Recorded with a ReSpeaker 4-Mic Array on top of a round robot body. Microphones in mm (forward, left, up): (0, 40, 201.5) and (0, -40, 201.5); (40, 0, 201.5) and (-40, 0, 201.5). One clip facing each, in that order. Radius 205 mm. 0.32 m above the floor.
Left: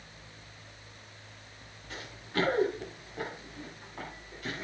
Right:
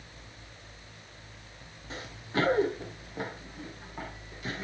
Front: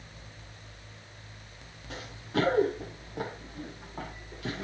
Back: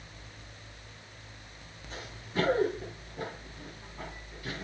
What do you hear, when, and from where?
1.9 s running footsteps: 25° right, 6 m; by 4.6 s 5° right, 6 m